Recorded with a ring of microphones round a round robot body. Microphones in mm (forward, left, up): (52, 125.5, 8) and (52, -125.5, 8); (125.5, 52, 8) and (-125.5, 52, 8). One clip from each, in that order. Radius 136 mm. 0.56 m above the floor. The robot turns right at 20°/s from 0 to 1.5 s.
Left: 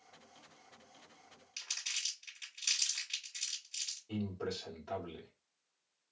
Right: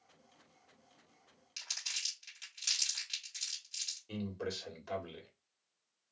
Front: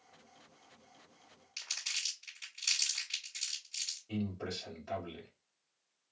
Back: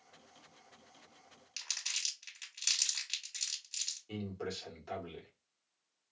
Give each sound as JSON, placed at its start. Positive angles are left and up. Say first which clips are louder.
{"t": 1.6, "sound": "crumpling", "louder": "even, even", "azimuth_deg": -165, "distance_m": 2.0}
{"t": 4.1, "sound": "a man speaking", "louder": "even, front 1 dB", "azimuth_deg": -115, "distance_m": 1.6}